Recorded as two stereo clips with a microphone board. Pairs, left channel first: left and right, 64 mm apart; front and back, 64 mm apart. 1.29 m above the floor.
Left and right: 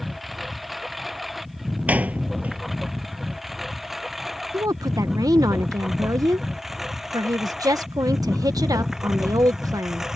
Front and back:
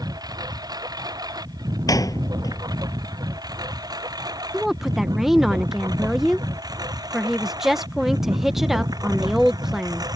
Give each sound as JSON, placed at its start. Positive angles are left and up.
{"t": 0.0, "sound": "a lawn mower", "azimuth_deg": 180}
{"t": 1.9, "sound": "a door slam", "azimuth_deg": -25}
{"t": 4.5, "sound": "a woman speaking", "azimuth_deg": -95}